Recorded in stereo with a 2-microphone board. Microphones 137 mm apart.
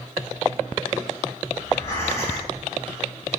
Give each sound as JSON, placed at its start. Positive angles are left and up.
{"t": 1.6, "sound": "breathing", "side_deg": 20, "distance_m": 3.0}